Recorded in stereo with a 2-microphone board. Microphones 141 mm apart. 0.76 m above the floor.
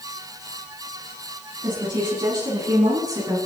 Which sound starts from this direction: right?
A woman speaking, at 1.6 s.